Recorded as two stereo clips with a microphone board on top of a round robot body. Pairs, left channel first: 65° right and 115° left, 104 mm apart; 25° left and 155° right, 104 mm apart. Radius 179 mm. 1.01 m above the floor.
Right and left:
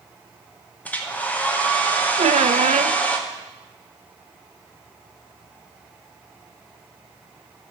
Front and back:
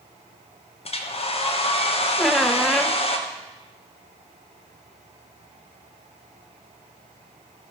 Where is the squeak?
115° left, 0.6 m.